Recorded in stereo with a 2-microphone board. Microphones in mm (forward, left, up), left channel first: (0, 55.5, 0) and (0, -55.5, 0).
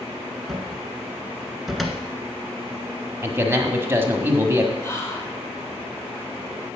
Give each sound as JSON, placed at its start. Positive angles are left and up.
{"t": 0.5, "sound": "a cupboard door", "side_deg": 0, "distance_m": 1.5}
{"t": 3.2, "sound": "a man speaking", "side_deg": -20, "distance_m": 1.5}
{"t": 4.8, "sound": "whispering", "side_deg": 25, "distance_m": 3.0}